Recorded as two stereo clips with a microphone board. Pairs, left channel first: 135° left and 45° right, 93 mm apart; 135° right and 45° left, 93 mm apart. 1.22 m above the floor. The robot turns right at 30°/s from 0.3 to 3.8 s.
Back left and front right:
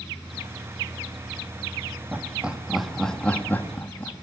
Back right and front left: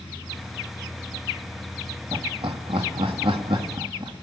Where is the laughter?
25° left, 2.5 m; by 4.1 s 75° left, 2.5 m.